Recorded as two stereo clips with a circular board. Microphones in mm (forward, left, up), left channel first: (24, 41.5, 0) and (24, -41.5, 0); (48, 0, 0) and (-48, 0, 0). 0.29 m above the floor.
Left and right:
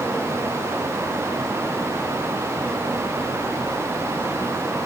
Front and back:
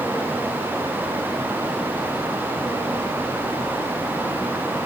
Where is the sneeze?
I don't hear a sneeze.